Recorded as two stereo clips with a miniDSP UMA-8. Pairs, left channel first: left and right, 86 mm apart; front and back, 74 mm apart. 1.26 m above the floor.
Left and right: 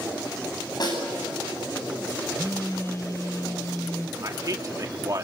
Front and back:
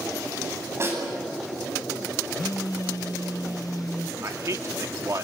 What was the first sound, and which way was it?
A snare drum, 125° left.